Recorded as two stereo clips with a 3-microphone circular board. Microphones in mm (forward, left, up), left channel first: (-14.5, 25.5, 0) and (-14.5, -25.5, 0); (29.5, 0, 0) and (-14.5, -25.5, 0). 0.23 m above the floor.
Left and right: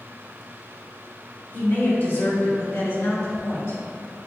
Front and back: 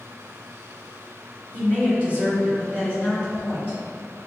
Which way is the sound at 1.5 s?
75° left.